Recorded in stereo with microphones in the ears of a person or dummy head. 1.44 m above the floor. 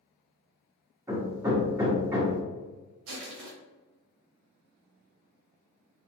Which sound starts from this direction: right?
Crushing, at 3.1 s.